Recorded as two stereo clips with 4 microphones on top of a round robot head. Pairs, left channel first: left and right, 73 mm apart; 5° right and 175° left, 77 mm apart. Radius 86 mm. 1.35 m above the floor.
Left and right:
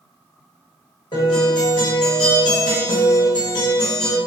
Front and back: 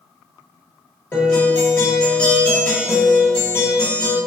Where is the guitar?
65° left, 1.1 m.